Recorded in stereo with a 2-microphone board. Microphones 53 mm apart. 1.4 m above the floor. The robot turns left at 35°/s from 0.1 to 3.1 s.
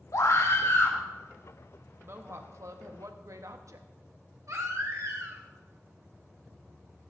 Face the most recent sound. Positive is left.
turn(degrees=-70)  # may be behind; listen again after turning